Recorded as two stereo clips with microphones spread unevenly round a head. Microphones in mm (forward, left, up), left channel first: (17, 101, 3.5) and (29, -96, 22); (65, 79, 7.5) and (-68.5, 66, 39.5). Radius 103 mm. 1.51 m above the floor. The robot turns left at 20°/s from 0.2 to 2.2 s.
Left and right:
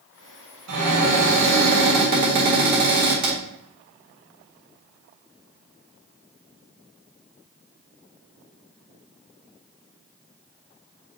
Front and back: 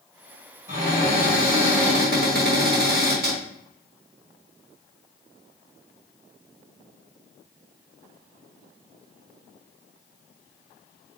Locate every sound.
0.7 s a cupboard door: 105° right, 2 m; by 3.4 s 135° right, 2 m